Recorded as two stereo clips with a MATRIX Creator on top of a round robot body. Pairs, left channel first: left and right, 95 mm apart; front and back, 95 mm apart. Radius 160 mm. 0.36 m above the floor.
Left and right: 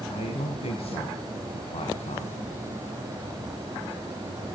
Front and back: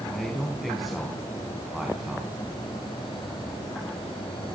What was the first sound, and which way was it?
A man speaking, 85° left.